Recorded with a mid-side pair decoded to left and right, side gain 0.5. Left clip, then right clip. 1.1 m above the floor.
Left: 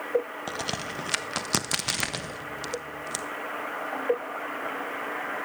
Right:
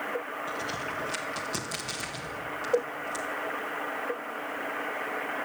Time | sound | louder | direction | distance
0.5 | a crack | left 1 dB | 65° left | 0.9 m